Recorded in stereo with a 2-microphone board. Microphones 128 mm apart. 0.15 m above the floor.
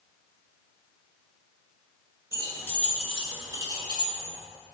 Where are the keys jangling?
30° left (ahead or behind), 1.4 m; by 4.3 s 50° right (ahead or behind), 1.6 m.